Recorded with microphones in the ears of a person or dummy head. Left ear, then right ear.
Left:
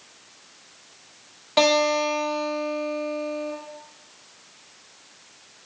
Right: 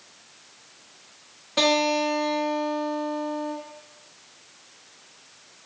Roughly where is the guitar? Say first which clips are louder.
Left 2 dB; left.